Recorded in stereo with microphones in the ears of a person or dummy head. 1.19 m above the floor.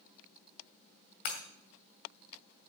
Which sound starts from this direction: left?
Breaking glass, at 1.2 s.